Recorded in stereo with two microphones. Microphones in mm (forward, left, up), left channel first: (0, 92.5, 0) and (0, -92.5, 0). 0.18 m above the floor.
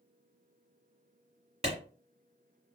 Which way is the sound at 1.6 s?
35° right (ahead or behind).